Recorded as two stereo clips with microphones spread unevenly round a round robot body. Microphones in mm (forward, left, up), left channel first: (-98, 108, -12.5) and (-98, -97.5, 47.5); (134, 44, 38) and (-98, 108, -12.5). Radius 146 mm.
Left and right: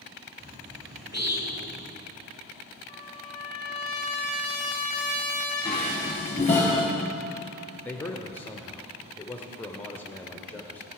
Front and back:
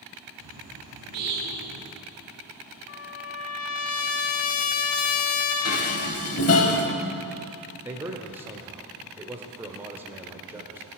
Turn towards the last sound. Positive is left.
turn(degrees=120)